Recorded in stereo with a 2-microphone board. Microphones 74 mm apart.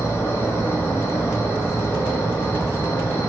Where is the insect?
30° left (ahead or behind), 1.1 m.